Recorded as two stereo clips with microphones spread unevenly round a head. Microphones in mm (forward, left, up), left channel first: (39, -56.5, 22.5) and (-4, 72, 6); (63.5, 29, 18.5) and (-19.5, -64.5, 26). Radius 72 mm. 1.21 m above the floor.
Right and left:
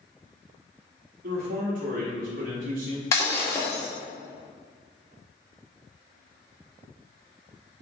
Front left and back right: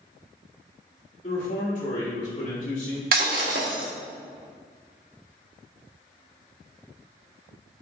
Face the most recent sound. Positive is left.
turn(degrees=-140)